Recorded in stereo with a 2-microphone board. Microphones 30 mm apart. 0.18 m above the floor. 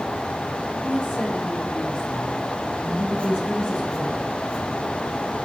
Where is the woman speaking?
55° left (ahead or behind), 3.5 m; by 4.3 s 35° left (ahead or behind), 7.5 m.